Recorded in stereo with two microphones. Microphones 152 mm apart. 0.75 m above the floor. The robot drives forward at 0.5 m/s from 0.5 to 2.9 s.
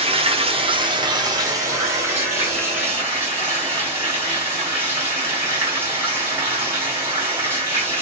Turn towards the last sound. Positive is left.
turn(degrees=-15)  # may be behind; listen again after turning